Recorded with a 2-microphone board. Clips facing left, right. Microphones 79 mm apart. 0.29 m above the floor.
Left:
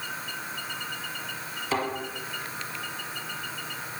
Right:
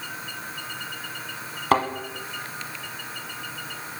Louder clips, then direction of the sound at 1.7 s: Right 8 dB; 65° right (ahead or behind).